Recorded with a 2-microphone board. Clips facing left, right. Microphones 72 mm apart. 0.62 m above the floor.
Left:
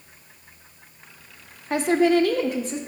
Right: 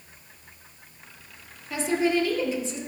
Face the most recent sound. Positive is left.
turn(degrees=45)  # may be behind; listen again after turning